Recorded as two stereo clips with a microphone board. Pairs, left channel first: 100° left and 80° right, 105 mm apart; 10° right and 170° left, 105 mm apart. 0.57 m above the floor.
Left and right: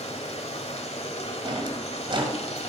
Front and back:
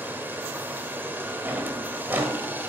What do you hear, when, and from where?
0.0 s running water: 100° left, 1.3 m
1.4 s a drawer: 120° right, 1.8 m